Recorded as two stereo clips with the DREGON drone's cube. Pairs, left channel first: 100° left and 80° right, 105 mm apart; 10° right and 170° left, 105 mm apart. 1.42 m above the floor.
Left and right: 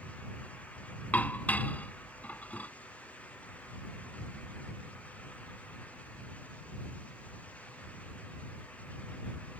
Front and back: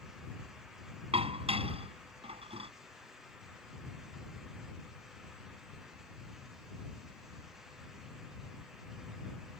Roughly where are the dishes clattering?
Behind.